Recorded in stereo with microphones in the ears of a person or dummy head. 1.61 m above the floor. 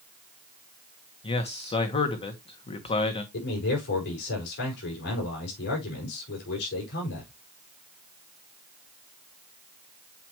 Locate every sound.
1.2 s a man speaking: 25° left (ahead or behind), 1.5 m
3.3 s a man speaking: 60° left (ahead or behind), 5 m